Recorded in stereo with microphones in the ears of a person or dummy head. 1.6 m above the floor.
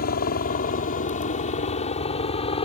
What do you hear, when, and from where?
0.0 s a helicopter: 55° left (ahead or behind); by 2.6 s 35° left (ahead or behind)